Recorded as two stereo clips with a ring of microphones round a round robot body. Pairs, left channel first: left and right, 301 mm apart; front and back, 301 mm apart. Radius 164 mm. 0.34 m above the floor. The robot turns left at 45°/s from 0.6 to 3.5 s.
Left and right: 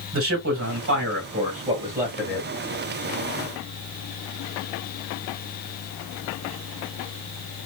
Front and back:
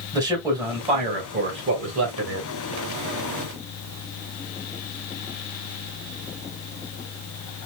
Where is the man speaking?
105° right, 1.9 m; by 2.5 s 170° left, 1.9 m.